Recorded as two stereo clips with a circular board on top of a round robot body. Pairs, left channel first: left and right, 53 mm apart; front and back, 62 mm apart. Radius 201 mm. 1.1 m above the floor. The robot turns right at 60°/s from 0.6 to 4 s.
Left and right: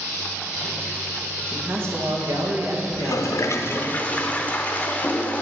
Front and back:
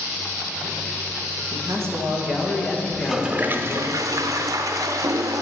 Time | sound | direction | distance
1.5 | a man speaking | 150° right | 1.7 m
2.9 | a toilet flushing | 85° left | 0.5 m